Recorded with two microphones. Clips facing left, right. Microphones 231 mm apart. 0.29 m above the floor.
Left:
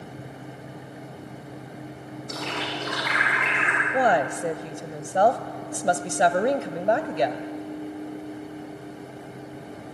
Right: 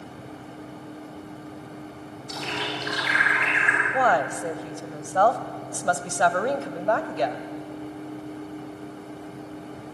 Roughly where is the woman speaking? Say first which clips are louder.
Left 2 dB; centre.